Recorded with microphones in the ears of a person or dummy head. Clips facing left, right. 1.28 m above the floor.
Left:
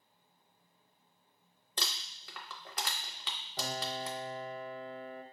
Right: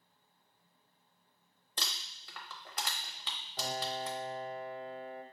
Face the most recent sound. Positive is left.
turn(degrees=70)  # may be behind; listen again after turning